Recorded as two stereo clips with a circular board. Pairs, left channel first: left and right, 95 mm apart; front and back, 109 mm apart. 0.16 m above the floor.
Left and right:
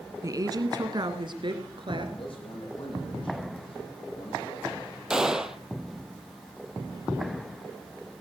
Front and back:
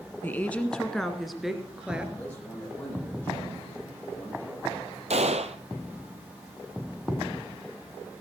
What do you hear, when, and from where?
0.2 s a woman speaking: 60° right, 1.3 m; by 2.1 s 100° right, 2 m
2.2 s a man speaking: 75° left, 8 m
5.1 s a gunshot: 175° right, 1.0 m